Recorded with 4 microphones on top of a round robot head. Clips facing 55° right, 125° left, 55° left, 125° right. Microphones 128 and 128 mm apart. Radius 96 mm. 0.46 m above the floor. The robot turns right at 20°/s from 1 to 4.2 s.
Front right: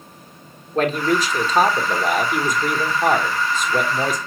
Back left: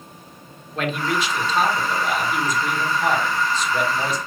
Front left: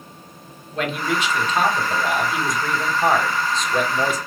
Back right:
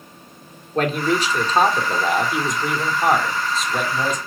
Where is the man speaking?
95° right, 1.2 m; by 4.2 s 30° right, 1.2 m.